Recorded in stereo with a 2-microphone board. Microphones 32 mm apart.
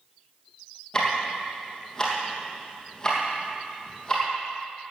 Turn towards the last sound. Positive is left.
turn(degrees=20)  # may be behind; listen again after turning